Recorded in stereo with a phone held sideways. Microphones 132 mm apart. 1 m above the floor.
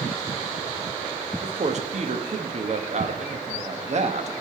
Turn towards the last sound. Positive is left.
turn(degrees=-55)  # may be behind; listen again after turning